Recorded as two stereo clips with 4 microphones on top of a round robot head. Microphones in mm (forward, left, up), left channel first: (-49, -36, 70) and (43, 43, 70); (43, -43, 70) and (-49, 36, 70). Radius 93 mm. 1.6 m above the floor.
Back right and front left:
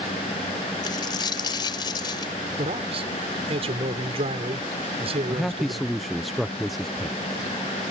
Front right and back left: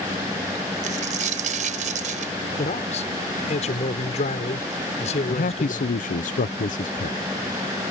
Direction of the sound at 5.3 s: 50° right.